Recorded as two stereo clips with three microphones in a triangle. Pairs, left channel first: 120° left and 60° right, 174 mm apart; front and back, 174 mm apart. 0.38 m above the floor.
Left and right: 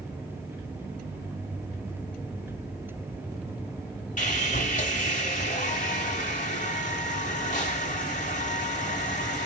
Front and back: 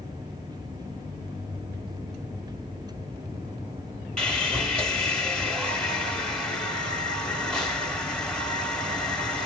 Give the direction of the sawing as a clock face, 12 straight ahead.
9 o'clock.